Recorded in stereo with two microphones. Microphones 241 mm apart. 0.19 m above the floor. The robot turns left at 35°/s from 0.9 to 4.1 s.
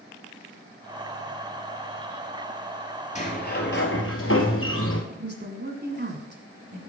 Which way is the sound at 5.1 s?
45° right (ahead or behind).